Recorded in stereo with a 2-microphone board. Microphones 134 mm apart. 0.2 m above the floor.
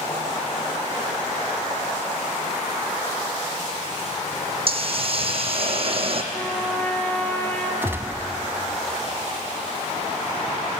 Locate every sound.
4.7 s a hiss: 45° right (ahead or behind), 1.6 m
6.3 s a trumpet: 10° left (ahead or behind), 2 m
7.8 s a gunshot: 20° right (ahead or behind), 0.9 m